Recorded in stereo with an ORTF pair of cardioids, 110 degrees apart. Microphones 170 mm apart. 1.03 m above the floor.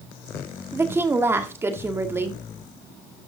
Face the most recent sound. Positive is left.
turn(degrees=-15)